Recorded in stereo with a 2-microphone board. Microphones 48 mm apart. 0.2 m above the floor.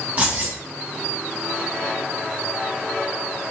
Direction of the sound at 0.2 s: 30° right (ahead or behind).